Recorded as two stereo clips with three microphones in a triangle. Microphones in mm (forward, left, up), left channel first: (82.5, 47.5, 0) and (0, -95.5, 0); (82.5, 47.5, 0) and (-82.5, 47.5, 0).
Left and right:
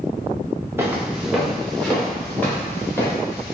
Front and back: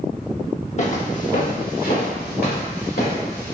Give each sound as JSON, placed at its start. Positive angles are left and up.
{"t": 0.8, "sound": "footsteps", "azimuth_deg": -45, "distance_m": 1.0}